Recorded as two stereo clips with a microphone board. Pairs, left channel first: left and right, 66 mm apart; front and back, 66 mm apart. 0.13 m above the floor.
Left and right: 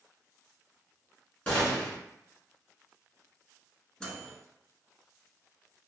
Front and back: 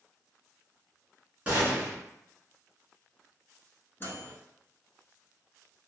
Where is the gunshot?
135° left, 1.8 m.